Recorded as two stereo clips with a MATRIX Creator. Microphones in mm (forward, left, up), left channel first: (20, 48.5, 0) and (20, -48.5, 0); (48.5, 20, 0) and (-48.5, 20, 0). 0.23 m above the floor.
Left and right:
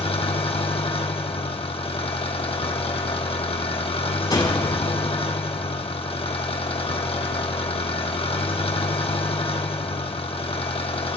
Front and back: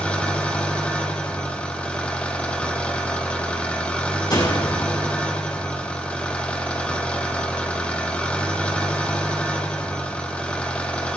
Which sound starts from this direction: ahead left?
A door slam, at 4.3 s.